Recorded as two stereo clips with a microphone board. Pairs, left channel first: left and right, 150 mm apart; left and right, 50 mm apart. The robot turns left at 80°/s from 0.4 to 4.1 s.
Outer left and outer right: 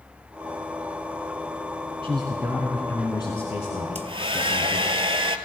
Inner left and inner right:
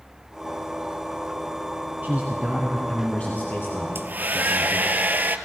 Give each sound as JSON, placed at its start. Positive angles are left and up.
{"t": 2.0, "sound": "a man speaking", "azimuth_deg": -125, "distance_m": 1.5}
{"t": 4.0, "sound": "a hair dryer", "side_deg": -50, "distance_m": 0.6}